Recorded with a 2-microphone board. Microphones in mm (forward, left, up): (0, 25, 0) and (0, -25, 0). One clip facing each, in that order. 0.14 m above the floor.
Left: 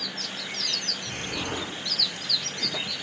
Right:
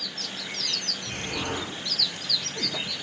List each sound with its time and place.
1.1 s an explosion: 35° right (ahead or behind), 4 m